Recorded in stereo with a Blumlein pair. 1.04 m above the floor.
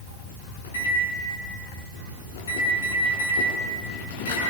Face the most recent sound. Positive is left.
turn(degrees=65)